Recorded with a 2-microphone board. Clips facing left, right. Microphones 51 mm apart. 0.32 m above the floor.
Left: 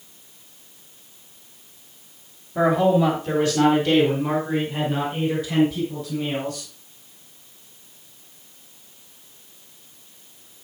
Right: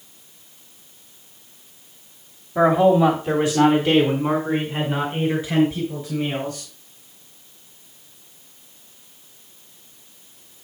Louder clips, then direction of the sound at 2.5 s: Right 3 dB; 10° right (ahead or behind).